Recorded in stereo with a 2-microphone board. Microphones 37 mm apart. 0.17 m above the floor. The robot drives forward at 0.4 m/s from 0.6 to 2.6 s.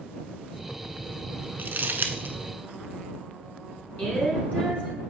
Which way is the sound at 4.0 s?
40° left (ahead or behind).